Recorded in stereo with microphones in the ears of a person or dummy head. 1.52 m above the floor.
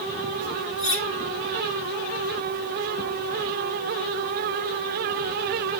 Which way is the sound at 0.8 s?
10° left (ahead or behind).